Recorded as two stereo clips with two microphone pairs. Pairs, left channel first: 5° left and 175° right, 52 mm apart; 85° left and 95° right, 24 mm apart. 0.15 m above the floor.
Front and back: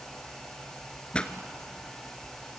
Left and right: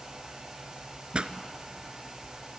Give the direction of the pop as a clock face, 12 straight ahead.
2 o'clock.